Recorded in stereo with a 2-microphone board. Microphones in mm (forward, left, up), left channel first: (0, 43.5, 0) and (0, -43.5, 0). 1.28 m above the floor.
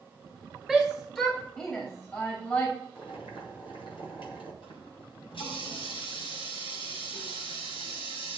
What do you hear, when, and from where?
0.7 s a shout: 5° left (ahead or behind), 1.6 m; by 2.7 s 25° left (ahead or behind), 3 m
3.0 s boiling: 85° left, 4 m
4.6 s a running tap: 85° left, 6.5 m